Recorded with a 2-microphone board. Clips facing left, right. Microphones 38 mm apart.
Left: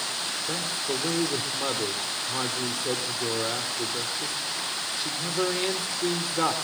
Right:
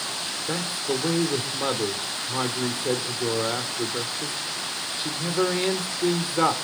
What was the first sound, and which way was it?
A man speaking, 15° right (ahead or behind).